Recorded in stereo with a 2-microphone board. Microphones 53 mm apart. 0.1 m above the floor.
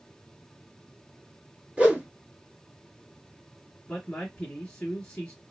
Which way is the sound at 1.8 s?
20° right (ahead or behind).